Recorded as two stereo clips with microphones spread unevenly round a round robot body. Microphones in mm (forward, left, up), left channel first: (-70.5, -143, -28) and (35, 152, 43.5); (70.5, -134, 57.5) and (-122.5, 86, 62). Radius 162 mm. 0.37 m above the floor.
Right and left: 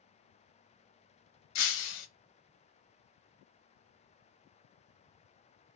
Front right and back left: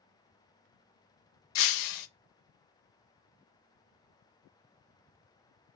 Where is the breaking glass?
60° right, 0.5 m.